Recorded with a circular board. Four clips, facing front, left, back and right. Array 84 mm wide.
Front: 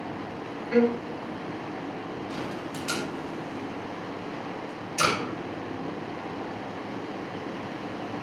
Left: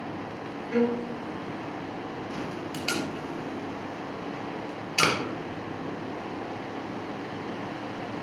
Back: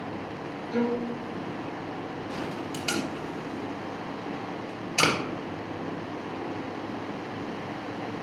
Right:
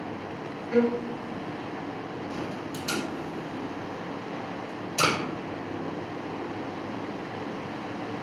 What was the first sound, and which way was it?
A violin, 5° left.